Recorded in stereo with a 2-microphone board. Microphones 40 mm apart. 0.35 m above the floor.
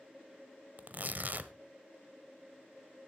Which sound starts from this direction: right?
Tearing paper, at 0.8 s.